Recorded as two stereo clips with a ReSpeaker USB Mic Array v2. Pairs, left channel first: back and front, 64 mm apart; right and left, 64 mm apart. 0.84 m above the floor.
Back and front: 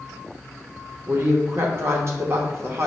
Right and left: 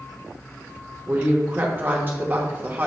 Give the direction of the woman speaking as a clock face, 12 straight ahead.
11 o'clock.